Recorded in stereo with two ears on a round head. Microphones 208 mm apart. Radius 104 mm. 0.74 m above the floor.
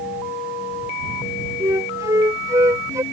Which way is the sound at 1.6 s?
15° right (ahead or behind).